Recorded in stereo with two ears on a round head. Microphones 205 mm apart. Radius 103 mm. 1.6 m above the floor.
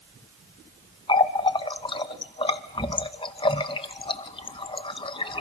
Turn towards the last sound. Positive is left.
turn(degrees=20)  # may be behind; listen again after turning